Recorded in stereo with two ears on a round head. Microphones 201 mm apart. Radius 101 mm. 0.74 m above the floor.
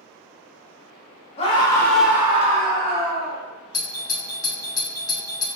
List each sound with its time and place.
1.4 s a scream: 25° left (ahead or behind), 1.2 m; by 3.4 s 60° right (ahead or behind), 1.5 m
3.7 s a doorbell: 20° left (ahead or behind), 0.9 m